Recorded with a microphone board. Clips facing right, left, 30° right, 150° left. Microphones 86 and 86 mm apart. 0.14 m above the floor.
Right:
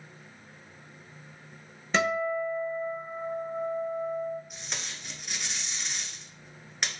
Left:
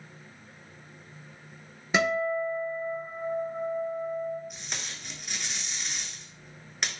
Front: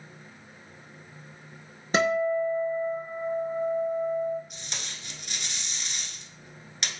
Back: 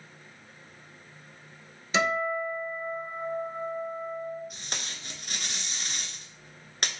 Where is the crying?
I don't hear crying.